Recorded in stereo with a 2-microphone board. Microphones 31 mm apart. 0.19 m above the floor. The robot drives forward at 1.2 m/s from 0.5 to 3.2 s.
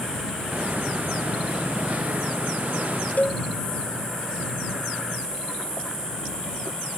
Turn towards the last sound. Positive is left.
turn(degrees=50)  # may be behind; listen again after turning